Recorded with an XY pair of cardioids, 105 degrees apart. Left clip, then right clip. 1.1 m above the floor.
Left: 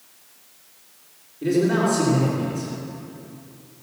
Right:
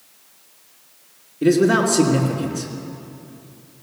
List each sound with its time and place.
1.4 s a man speaking: 70° right, 3 m